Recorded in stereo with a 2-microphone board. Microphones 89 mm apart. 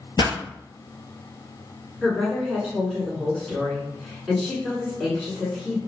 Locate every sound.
0.2 s a pop: 55° left (ahead or behind), 0.8 m
2.0 s a woman speaking: centre (ahead or behind), 1.3 m